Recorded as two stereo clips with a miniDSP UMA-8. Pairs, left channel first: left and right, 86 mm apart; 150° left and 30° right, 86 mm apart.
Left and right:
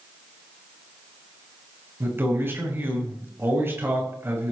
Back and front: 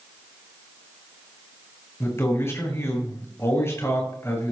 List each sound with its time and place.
2.0 s a man speaking: 150° right, 5.5 m